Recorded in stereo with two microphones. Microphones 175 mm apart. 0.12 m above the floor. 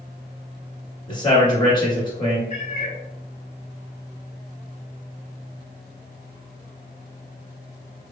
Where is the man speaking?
25° left (ahead or behind), 1.5 m.